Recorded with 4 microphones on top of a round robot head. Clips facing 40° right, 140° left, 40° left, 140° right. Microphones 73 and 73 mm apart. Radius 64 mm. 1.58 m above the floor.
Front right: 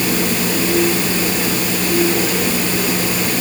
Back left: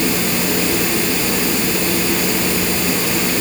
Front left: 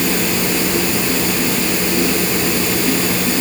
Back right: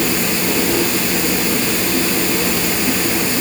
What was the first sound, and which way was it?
Only background noise.